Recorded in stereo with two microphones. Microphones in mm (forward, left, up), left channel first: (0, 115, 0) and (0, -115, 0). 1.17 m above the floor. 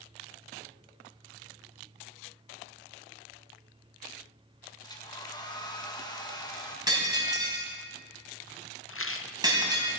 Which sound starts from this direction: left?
A rattle, at 8.9 s.